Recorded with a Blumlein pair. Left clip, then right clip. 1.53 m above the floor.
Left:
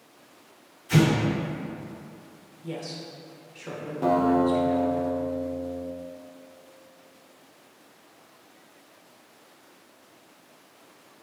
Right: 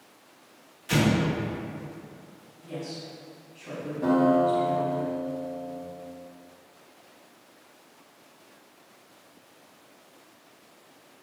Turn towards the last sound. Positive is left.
turn(degrees=25)